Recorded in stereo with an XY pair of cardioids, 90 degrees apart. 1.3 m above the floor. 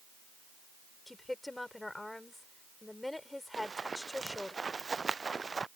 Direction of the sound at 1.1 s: 15° left.